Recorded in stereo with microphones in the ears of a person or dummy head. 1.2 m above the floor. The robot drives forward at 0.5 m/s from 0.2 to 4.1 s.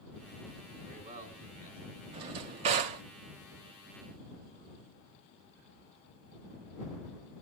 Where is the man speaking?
35° right (ahead or behind), 5 m.